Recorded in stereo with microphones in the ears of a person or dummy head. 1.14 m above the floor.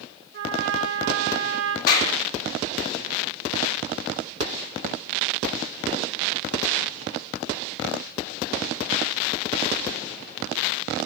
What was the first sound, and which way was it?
A trumpet, 65° right (ahead or behind).